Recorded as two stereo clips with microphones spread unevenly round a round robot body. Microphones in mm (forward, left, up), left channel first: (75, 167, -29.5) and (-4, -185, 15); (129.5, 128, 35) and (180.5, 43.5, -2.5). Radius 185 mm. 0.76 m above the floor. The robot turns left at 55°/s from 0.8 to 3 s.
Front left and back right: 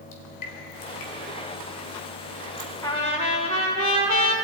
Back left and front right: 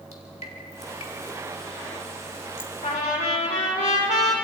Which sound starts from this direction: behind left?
Dripping, at 0.1 s.